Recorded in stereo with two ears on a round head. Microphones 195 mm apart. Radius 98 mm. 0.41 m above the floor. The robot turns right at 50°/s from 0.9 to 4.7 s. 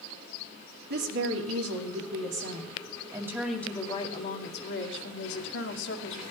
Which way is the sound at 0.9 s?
130° right.